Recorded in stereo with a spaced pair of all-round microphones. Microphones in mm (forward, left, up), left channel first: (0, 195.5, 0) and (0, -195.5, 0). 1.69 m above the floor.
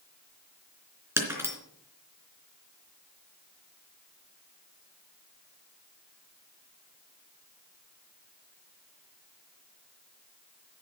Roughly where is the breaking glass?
Centre.